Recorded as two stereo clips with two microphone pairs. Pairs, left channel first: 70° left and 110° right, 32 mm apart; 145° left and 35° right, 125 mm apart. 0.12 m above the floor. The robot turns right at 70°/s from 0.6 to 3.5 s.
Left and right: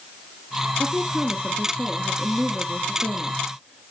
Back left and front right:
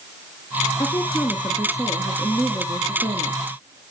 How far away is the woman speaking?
About 1.2 m.